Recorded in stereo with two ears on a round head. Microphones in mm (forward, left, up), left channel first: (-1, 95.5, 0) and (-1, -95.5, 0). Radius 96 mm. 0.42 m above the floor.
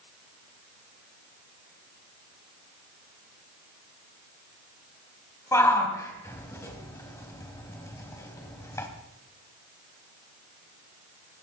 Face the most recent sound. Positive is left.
turn(degrees=15)  # may be behind; listen again after turning